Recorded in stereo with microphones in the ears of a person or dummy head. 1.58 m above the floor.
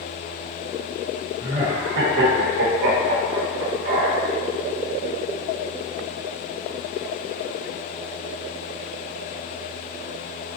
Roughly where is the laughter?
Right.